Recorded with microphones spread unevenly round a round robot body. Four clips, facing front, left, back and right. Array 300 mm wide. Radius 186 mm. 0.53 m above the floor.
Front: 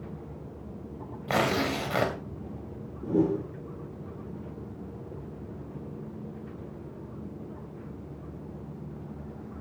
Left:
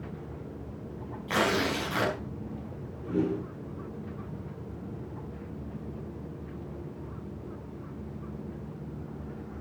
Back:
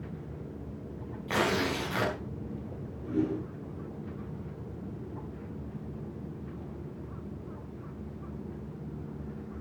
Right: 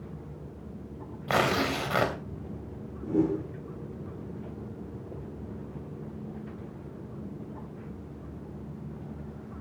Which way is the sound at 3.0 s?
Straight ahead.